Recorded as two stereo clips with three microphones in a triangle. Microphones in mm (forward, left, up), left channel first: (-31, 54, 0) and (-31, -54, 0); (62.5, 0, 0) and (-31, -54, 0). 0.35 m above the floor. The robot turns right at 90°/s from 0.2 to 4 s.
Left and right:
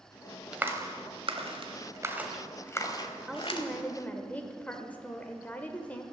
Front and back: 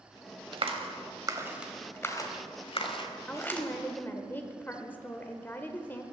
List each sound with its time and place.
0.5 s a clap: 170° right, 1.2 m; by 3.7 s 115° left, 1.2 m
3.3 s a woman speaking: 20° right, 0.9 m; by 6.0 s 50° left, 0.9 m